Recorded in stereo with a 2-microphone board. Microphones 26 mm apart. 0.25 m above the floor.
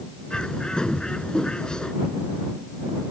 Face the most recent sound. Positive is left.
turn(degrees=35)  # may be behind; listen again after turning